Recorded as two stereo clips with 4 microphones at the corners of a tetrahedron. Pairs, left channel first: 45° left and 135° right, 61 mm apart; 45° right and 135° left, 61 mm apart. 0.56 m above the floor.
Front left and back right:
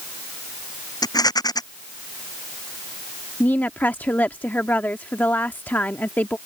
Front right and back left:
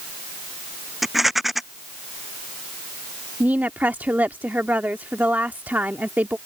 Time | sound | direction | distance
1.0 | a rattle | 45° left | ?
3.4 | a woman speaking | 95° left | ?